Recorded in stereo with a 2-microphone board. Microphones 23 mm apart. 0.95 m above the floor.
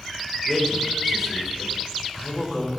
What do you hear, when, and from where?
0.5 s a man speaking: centre (ahead or behind), 4.5 m